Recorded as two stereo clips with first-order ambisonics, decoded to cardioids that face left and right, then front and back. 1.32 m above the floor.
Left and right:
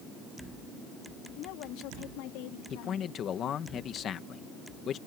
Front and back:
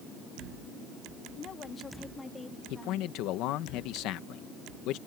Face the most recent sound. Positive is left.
turn(degrees=30)